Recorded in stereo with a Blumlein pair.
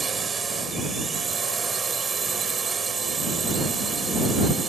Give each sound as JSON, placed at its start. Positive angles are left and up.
{"t": 0.0, "sound": "a drone", "azimuth_deg": -15}